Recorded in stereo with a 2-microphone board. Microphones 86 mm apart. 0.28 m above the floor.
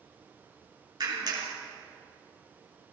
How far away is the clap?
About 3 m.